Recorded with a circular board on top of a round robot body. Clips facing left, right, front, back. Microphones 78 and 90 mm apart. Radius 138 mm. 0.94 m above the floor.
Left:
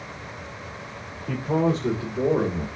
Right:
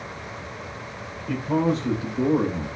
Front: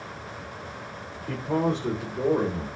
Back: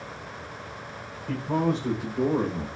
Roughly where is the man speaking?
Left.